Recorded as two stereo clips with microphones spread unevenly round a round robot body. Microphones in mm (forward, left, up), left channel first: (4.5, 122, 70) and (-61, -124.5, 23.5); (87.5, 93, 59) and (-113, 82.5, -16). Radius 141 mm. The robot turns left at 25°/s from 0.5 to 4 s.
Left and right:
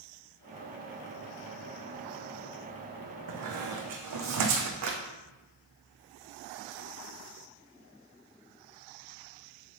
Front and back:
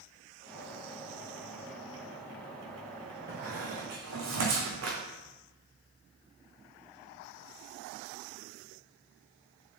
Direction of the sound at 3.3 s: 110° right.